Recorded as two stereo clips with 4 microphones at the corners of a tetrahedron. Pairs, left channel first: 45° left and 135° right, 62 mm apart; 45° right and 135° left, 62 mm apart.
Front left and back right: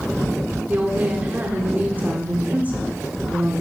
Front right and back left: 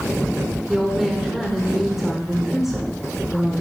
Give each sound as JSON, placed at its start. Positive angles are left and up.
{"t": 0.7, "sound": "a woman speaking", "azimuth_deg": -145, "distance_m": 1.5}